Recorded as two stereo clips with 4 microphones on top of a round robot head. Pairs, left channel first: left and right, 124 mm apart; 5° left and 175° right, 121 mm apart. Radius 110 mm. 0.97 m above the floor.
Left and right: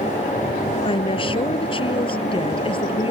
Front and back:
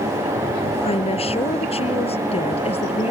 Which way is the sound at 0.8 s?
45° left.